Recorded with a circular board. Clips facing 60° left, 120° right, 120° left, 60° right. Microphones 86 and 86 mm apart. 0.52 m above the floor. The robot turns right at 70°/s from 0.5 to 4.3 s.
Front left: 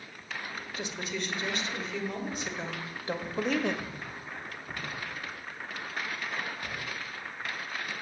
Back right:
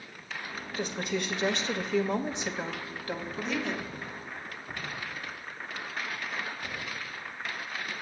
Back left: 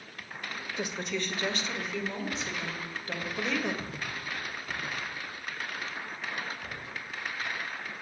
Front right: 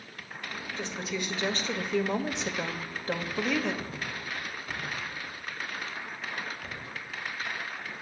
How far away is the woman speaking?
About 1.7 m.